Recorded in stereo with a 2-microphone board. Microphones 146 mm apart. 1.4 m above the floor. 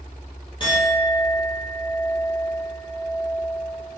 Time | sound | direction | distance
0.6 | a clink | 35° left (ahead or behind) | 1.2 m